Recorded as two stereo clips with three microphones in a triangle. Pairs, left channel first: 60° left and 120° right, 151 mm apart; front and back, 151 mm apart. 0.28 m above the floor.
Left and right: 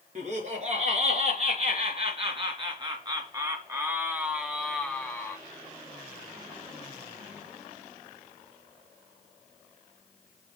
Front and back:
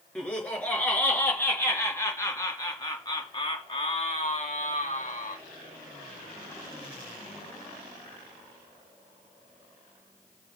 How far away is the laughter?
About 4 m.